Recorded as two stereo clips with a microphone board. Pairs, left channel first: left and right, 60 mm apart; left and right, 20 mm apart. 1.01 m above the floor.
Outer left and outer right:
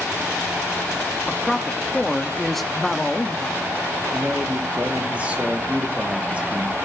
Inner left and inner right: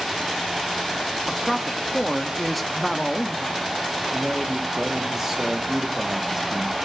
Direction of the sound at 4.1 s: 20° right (ahead or behind).